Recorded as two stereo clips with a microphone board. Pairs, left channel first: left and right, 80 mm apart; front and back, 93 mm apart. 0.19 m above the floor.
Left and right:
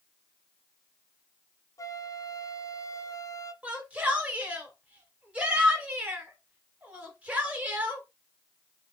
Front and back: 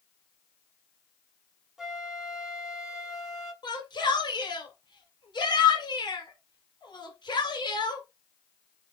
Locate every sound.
1.8 s a flute: 95° left, 0.9 m
3.6 s a shout: 20° right, 2.5 m